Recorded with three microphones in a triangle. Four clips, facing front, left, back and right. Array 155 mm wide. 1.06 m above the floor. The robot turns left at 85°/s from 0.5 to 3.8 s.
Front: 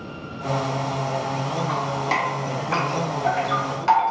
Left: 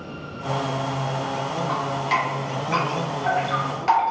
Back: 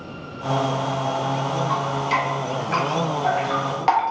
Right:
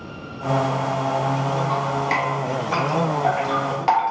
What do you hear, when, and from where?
1.7 s dripping: 30° left, 1.3 m; by 4.1 s 145° right, 1.3 m